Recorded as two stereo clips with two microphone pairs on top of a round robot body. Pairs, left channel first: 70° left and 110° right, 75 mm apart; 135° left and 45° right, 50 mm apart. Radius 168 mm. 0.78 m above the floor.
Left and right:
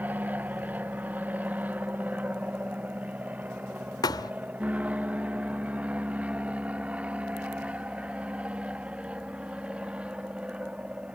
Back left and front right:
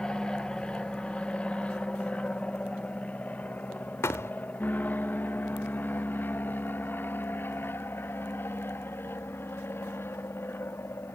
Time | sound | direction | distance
0.0 | an aircraft | 140° right | ?
4.0 | a thud | 110° left | ?